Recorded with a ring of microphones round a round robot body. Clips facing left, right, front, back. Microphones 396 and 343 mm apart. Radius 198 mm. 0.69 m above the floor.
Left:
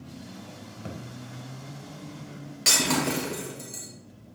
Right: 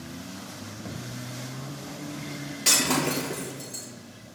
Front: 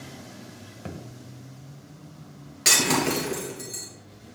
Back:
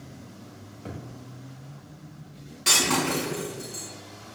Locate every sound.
0.8 s a thud: 30° left, 1.9 m
2.6 s breaking glass: 10° left, 4.5 m